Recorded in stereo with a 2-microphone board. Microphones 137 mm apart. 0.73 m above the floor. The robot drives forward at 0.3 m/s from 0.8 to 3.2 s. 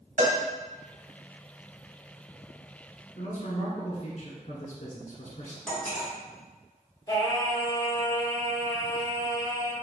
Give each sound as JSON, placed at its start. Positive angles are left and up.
{"t": 0.2, "sound": "a cowbell", "side_deg": -60, "distance_m": 1.0}
{"t": 3.1, "sound": "a man speaking", "side_deg": 50, "distance_m": 1.3}
{"t": 5.7, "sound": "cutlery clinking", "side_deg": 5, "distance_m": 1.8}
{"t": 7.1, "sound": "singing", "side_deg": 30, "distance_m": 0.8}